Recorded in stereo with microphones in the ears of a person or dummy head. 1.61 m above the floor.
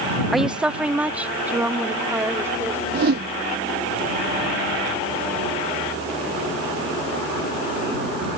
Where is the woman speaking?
5° right (ahead or behind); by 2.8 s 15° right (ahead or behind).